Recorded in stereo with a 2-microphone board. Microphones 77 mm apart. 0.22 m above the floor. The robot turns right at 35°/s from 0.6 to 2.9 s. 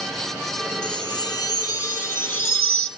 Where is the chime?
100° left, 4.5 m; by 2.9 s 170° left, 4.5 m.